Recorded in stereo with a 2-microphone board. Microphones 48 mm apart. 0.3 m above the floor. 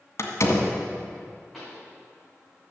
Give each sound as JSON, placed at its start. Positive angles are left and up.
{"t": 0.2, "sound": "a door slam", "side_deg": 65, "distance_m": 1.7}
{"t": 1.5, "sound": "a pop", "side_deg": 5, "distance_m": 5.0}